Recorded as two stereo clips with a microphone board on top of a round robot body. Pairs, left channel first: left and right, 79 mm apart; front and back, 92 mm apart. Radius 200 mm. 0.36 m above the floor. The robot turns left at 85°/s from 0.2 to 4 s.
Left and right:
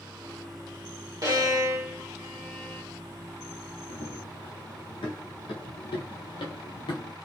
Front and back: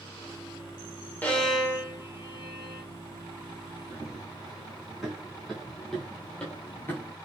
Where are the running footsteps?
105° left, 2.5 m; by 7.2 s 65° left, 0.7 m.